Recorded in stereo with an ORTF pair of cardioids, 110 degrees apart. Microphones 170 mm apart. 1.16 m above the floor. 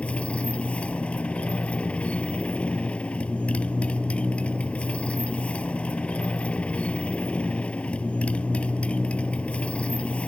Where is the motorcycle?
5° left.